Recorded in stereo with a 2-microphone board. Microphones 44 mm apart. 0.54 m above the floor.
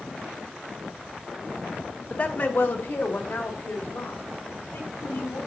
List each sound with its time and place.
2.1 s a woman speaking: 30° left (ahead or behind), 0.7 m; by 5.4 s 70° left (ahead or behind), 3.5 m